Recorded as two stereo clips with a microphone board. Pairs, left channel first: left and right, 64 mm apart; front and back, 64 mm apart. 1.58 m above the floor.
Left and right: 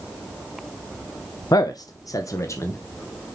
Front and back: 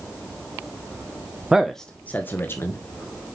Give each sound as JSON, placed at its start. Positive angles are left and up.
{"t": 1.5, "sound": "a man speaking", "azimuth_deg": 100, "distance_m": 0.5}